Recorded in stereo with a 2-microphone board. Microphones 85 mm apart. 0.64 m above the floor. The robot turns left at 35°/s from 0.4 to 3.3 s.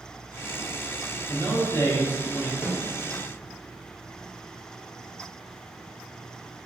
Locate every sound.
1.3 s a man speaking: 95° left, 0.6 m; by 2.5 s 50° left, 0.6 m
2.6 s a snare drum: 30° left (ahead or behind), 0.7 m